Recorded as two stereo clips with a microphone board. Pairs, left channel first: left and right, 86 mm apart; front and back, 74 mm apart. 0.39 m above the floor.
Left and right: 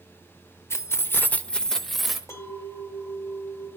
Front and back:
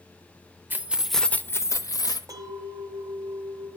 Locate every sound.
0.7 s keys jangling: 130° left, 0.6 m; by 2.2 s straight ahead, 0.9 m
2.3 s a clink: 140° left, 1.2 m